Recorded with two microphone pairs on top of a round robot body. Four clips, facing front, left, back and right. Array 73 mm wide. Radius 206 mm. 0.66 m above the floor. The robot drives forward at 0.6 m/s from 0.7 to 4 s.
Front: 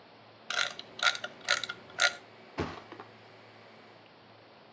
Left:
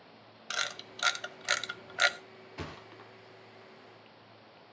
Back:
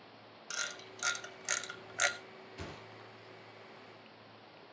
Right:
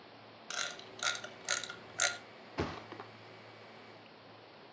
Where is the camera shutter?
20° left, 1.5 m; by 2.2 s 80° left, 1.1 m.